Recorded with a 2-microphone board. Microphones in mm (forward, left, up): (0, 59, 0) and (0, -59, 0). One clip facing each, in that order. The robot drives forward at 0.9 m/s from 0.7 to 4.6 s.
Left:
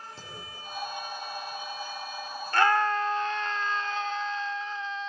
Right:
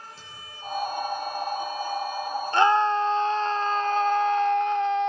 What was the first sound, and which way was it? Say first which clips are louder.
A clunk: even; 40° left (ahead or behind).